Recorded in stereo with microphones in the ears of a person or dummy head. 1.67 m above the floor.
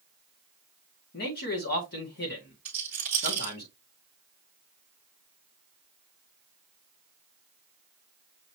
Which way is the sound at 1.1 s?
50° left (ahead or behind).